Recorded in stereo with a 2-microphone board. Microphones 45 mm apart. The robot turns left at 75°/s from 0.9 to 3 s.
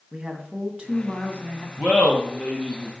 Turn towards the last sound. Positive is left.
turn(degrees=145)